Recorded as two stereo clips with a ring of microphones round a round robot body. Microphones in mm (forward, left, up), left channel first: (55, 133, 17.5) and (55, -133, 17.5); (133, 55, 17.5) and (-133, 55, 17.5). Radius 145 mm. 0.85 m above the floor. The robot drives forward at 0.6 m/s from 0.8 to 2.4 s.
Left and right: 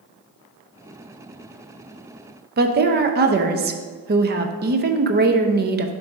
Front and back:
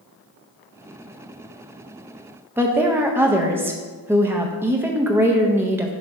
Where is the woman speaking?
105° right, 0.6 m.